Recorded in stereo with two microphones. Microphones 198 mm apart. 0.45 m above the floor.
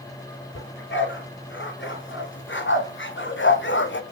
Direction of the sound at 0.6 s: 75° left (ahead or behind).